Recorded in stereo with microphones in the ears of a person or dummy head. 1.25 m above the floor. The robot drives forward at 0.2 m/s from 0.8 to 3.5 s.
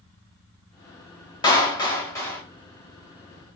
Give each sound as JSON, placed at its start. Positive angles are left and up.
{"t": 1.4, "sound": "a clap", "side_deg": 20, "distance_m": 0.9}